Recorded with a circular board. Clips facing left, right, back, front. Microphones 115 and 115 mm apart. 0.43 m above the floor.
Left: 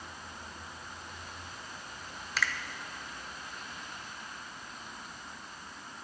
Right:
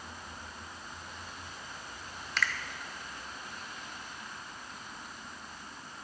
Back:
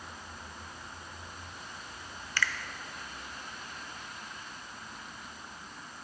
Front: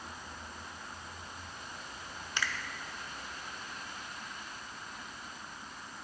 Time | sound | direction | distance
2.4 | a finger snap | 5° left | 0.5 m